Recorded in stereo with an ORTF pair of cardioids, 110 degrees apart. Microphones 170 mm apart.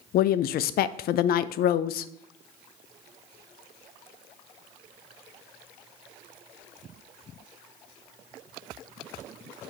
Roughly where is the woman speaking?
Ahead left.